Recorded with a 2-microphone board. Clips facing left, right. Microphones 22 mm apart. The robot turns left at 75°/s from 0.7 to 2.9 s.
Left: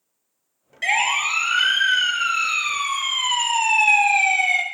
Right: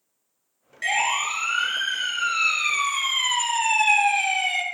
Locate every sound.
0.8 s a siren: centre (ahead or behind), 5 m; by 4.6 s 35° left (ahead or behind), 3 m